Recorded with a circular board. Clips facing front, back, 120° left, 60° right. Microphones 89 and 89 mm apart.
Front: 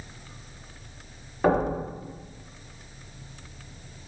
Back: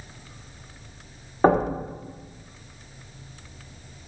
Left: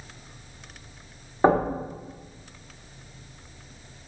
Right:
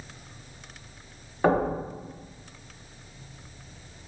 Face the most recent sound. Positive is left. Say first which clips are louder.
# back 3 dB, left 3 dB
turn(degrees=165)